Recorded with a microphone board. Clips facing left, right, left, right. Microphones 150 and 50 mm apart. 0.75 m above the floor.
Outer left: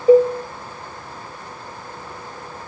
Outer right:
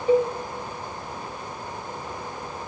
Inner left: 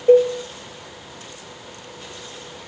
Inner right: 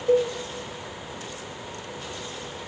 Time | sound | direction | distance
0.1 | a cowbell | 40° left (ahead or behind) | 1.6 m